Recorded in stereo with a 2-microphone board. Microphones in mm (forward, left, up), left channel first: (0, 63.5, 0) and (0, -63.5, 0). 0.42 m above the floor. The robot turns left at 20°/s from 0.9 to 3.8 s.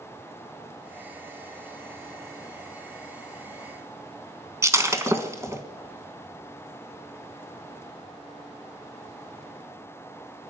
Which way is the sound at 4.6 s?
25° right (ahead or behind).